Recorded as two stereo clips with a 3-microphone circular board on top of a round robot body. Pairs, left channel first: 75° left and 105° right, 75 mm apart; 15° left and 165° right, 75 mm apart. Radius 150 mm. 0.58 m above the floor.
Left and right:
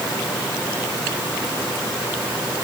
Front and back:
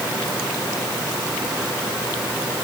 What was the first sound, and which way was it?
Only background noise.